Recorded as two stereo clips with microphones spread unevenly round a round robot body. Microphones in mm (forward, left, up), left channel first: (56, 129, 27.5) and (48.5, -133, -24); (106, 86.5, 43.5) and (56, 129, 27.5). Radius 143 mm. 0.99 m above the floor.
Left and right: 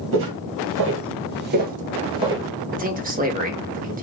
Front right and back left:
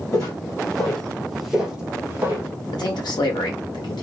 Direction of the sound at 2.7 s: 40° right.